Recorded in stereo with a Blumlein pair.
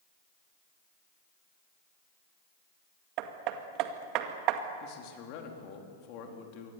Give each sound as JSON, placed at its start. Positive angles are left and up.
{"t": 3.2, "sound": "hammering", "azimuth_deg": -40, "distance_m": 2.0}
{"t": 4.8, "sound": "a man speaking", "azimuth_deg": 45, "distance_m": 4.0}